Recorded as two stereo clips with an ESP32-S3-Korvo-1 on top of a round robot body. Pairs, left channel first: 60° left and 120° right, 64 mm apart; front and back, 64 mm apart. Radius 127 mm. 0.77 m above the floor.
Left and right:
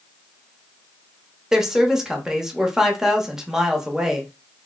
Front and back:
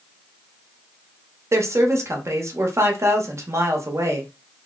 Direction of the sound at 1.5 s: 160° left.